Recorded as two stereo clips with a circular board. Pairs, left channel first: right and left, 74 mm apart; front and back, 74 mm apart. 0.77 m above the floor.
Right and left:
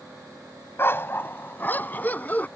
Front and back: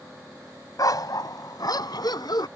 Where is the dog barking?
30° right; by 2.5 s 20° right.